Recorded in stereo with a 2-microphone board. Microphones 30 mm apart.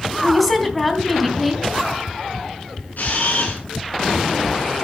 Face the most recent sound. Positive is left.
turn(degrees=70)  # may be behind; listen again after turning